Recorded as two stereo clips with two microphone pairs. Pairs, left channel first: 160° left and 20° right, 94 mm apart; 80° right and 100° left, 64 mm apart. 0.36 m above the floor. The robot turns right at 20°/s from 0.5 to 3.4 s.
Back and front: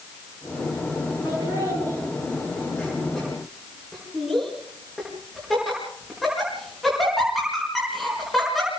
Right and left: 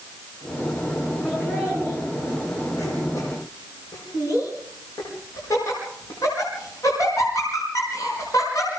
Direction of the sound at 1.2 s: 155° right.